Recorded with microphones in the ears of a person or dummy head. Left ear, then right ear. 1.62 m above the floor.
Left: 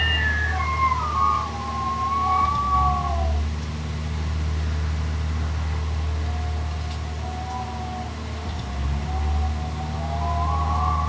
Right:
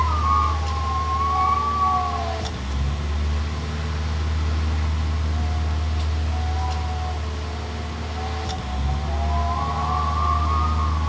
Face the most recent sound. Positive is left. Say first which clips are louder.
# right 2 dB
turn(degrees=-40)  # may be behind; listen again after turning